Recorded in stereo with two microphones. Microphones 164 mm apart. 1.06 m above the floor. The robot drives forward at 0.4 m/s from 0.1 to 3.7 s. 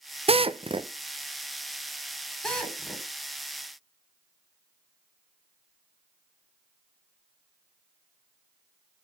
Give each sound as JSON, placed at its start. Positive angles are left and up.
{"t": 0.3, "sound": "a drill", "side_deg": -35, "distance_m": 0.5}
{"t": 2.4, "sound": "a drill", "side_deg": 5, "distance_m": 3.5}